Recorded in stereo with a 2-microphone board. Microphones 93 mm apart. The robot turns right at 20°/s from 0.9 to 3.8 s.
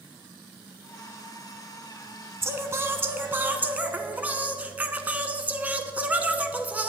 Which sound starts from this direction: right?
Singing, at 2.4 s.